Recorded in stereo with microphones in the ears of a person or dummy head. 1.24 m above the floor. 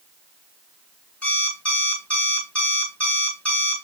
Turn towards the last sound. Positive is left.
turn(degrees=5)  # may be behind; listen again after turning